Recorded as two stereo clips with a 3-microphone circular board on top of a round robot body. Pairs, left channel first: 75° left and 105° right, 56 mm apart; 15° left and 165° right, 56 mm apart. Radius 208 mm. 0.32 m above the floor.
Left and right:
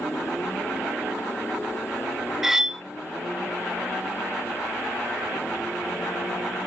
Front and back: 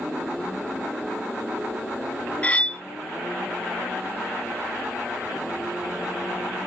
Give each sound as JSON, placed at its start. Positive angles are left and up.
{"t": 2.4, "sound": "cutlery clinking", "azimuth_deg": -30, "distance_m": 0.6}